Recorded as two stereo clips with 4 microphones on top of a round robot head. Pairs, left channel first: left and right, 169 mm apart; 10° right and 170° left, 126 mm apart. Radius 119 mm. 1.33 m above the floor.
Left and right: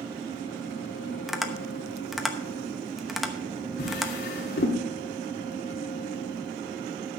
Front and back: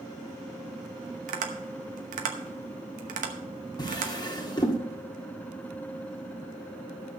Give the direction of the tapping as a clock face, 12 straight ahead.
6 o'clock.